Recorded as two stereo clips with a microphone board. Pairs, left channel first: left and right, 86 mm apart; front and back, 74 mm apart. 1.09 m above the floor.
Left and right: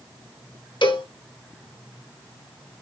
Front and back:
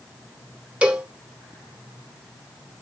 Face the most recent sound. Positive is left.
turn(degrees=105)